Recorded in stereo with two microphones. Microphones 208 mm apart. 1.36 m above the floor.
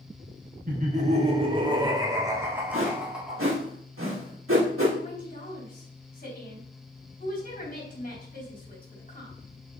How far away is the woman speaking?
About 4 m.